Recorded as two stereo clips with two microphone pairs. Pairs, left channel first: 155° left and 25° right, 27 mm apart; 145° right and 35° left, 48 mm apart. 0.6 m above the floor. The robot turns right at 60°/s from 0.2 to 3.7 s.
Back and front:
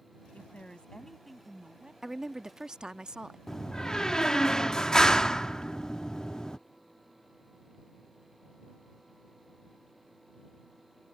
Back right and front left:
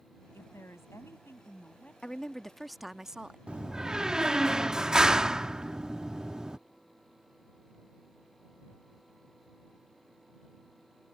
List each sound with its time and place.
0.3 s a woman speaking: 175° right; by 1.9 s 80° right
2.0 s a woman speaking: 95° right; by 3.4 s 15° right
3.5 s a door slam: 85° left; by 6.6 s 100° left